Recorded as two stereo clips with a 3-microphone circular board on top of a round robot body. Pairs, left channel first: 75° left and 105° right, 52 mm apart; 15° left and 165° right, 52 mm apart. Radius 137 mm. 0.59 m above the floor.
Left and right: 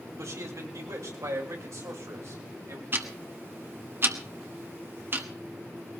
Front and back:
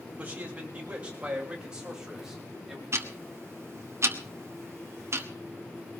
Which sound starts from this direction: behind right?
Ticking, at 2.9 s.